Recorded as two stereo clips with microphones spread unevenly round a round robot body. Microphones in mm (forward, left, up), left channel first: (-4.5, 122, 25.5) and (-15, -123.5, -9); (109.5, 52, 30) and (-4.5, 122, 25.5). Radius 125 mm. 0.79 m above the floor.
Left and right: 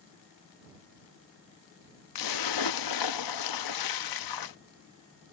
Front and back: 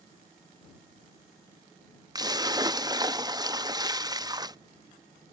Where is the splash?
85° left.